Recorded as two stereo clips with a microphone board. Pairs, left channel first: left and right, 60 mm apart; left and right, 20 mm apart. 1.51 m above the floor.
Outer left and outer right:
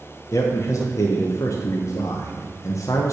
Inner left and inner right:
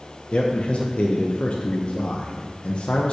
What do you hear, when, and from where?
0.3 s a man speaking: 55° left (ahead or behind), 0.8 m